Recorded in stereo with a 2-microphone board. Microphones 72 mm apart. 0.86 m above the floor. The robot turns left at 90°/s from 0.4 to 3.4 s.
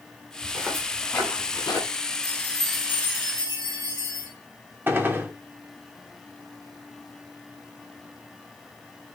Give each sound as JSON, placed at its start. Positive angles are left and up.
{"t": 0.4, "sound": "footsteps", "side_deg": -20, "distance_m": 5.0}
{"t": 2.2, "sound": "a chime", "azimuth_deg": 45, "distance_m": 3.5}
{"t": 4.9, "sound": "a gunshot", "side_deg": -30, "distance_m": 0.9}